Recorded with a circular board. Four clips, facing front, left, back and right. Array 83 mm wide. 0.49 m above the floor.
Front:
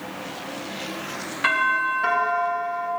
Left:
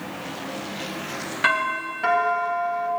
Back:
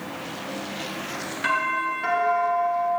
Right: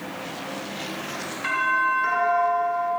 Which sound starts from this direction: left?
A doorbell, at 1.4 s.